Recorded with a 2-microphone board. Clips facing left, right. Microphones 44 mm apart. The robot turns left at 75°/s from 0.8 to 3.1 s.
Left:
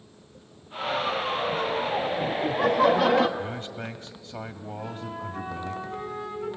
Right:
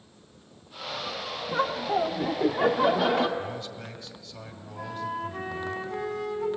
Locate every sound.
1.5 s laughter: 65° right, 1.3 m; by 3.3 s 175° left, 1.3 m
3.4 s a man speaking: 35° left (ahead or behind), 1.7 m
4.8 s a flute: 70° right (ahead or behind), 6 m